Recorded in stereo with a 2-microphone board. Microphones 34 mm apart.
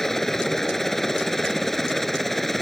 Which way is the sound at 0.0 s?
10° left (ahead or behind).